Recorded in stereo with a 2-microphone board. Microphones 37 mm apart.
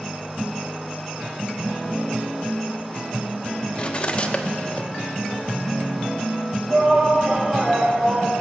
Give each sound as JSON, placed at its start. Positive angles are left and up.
{"t": 3.8, "sound": "cutlery clinking", "side_deg": 30, "distance_m": 1.0}
{"t": 6.7, "sound": "a shout", "side_deg": -30, "distance_m": 6.5}